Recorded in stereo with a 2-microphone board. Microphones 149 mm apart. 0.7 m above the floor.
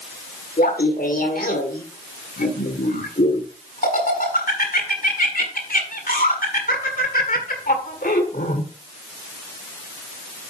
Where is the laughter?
75° left (ahead or behind), 1.7 m.